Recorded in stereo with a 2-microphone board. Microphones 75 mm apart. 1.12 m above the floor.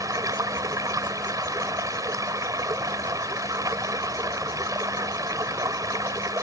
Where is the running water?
50° right (ahead or behind).